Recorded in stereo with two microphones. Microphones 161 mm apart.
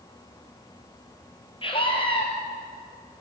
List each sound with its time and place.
1.6 s a scream: 35° left (ahead or behind), 3 m